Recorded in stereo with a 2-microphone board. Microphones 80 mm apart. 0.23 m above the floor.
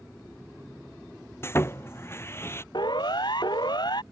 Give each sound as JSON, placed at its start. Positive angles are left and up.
{"t": 1.4, "sound": "sawing", "side_deg": 30}
{"t": 2.7, "sound": "a siren", "side_deg": 65}